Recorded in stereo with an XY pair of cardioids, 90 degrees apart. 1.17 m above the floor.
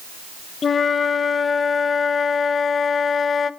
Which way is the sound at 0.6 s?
45° left.